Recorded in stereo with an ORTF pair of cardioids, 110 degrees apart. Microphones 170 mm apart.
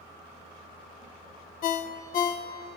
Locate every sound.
1.6 s a ringtone: 60° left, 0.5 m